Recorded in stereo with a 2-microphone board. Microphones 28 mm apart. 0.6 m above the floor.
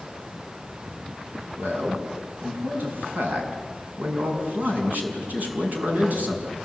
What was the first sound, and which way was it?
A man speaking, 75° right (ahead or behind).